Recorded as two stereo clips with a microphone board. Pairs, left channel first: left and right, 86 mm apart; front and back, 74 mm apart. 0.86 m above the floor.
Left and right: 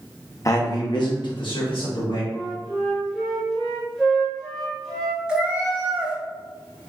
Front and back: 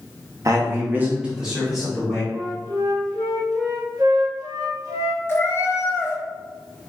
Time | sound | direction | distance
0.5 | a man speaking | 140° left | 0.7 m
2.3 | a flute | 175° left | 0.9 m
5.3 | a cat meowing | 20° right | 0.7 m